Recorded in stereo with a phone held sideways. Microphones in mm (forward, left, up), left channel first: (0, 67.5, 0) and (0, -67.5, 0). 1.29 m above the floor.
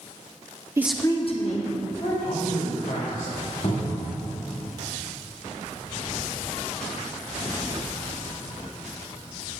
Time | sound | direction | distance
0.8 | a woman speaking | 20° right (ahead or behind) | 0.6 m
2.2 | a man speaking | 85° left | 2.5 m
3.6 | a cupboard door | 55° left (ahead or behind) | 1.9 m